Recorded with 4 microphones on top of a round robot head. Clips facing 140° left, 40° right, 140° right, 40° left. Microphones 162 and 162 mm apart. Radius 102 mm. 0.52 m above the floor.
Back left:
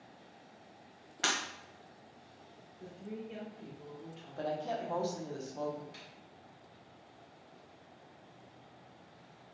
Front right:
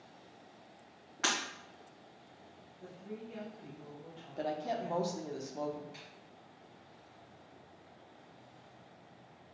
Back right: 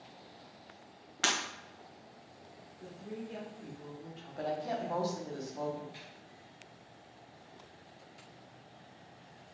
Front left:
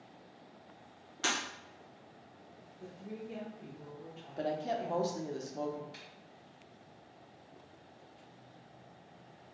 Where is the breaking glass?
165° right, 1.4 m.